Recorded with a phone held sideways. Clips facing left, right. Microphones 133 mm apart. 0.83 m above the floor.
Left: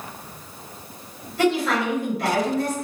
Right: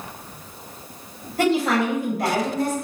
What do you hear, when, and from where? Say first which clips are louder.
1.4 s a woman speaking: right 1 dB; 45° right (ahead or behind), 1.4 m